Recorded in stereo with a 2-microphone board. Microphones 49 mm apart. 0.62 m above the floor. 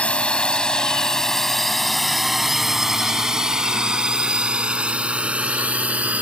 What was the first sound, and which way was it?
A drone, 25° left (ahead or behind).